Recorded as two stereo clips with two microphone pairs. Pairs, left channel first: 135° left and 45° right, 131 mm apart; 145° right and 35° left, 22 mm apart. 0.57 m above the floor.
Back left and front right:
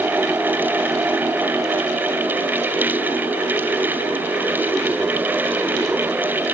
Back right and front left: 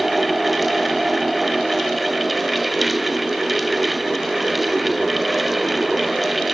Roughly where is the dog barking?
I don't hear a dog barking.